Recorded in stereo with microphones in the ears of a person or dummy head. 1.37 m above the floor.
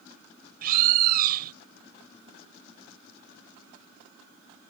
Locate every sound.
0.6 s a bird: 50° right (ahead or behind)